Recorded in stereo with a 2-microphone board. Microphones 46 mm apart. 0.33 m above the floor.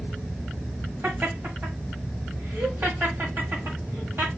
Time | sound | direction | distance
1.0 | laughter | 55° right (ahead or behind) | 1.6 m